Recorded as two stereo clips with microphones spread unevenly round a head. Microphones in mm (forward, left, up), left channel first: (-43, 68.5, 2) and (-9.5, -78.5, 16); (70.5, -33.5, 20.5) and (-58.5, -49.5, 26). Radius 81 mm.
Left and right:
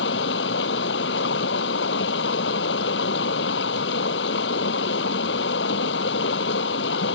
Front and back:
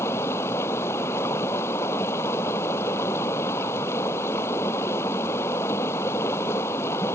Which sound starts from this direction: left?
Running water, at 0.0 s.